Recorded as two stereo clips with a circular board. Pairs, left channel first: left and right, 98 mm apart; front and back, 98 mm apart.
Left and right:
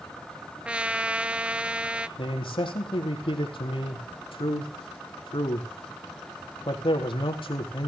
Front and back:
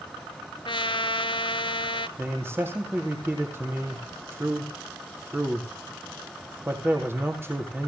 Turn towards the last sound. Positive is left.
turn(degrees=115)